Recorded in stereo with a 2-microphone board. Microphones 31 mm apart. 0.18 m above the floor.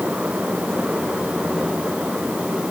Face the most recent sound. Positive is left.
No sound to turn to.